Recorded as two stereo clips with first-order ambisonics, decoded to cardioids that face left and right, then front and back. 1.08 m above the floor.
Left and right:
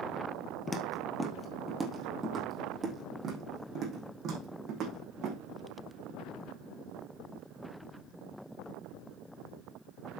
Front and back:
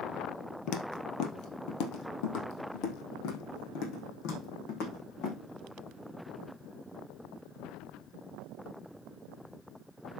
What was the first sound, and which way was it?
Footsteps, 15° left.